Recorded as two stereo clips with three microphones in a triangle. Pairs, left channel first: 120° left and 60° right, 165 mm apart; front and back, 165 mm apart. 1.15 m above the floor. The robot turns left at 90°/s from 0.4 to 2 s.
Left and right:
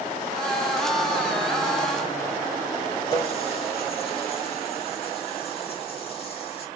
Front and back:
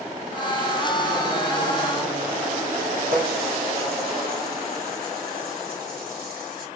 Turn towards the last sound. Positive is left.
turn(degrees=170)